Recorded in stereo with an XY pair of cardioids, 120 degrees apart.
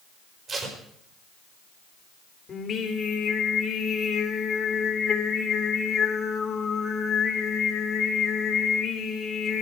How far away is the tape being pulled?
About 5 m.